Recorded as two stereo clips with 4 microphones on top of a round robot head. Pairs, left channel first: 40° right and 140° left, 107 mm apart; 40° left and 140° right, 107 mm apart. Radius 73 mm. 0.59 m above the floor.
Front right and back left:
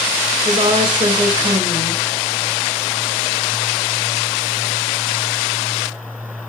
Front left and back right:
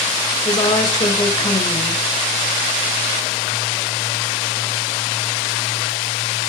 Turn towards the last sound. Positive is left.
turn(degrees=95)